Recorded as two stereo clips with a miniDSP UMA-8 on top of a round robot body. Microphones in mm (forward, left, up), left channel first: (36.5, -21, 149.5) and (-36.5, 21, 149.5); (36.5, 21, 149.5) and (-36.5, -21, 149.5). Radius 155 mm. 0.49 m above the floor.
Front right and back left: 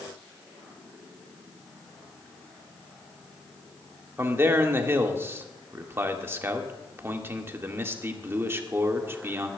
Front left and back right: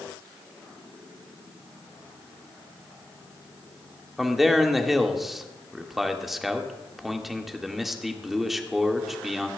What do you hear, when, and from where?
4.2 s a man speaking: 125° left, 1.4 m